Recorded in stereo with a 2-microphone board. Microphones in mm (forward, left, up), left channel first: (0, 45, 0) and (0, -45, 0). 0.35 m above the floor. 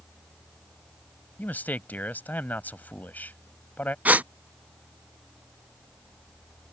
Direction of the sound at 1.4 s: 20° left (ahead or behind).